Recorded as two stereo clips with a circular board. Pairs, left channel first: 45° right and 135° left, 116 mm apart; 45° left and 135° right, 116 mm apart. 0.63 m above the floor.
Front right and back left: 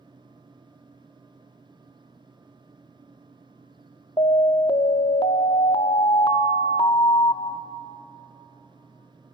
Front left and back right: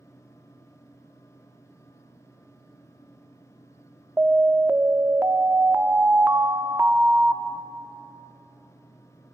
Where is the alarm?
70° right, 0.6 m.